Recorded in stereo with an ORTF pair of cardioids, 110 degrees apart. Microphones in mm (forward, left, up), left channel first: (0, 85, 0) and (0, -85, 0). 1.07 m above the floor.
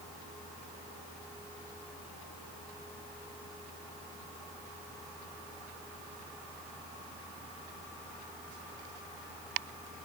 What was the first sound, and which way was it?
Only background noise.